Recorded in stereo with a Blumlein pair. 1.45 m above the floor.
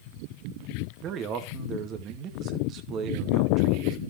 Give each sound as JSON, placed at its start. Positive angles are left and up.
{"t": 1.0, "sound": "a man speaking", "azimuth_deg": -30, "distance_m": 2.0}